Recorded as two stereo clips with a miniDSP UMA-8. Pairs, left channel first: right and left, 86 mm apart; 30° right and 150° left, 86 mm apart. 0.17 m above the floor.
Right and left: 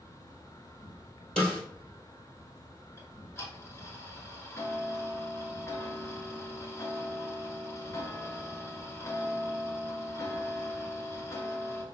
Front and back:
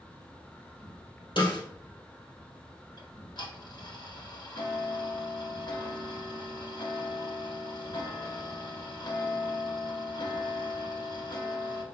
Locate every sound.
0.0 s an insect: 100° right, 1.0 m
1.4 s a snare drum: 10° right, 2.5 m
3.0 s ticking: 40° right, 1.1 m